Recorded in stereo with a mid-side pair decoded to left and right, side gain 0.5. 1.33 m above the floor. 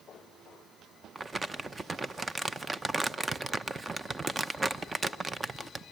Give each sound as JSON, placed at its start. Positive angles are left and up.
{"t": 1.1, "sound": "crumpling", "azimuth_deg": -20, "distance_m": 0.8}